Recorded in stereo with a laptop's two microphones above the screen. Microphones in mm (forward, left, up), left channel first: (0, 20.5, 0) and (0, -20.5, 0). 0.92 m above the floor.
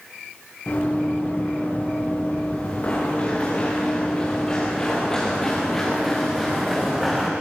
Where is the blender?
I don't hear a blender.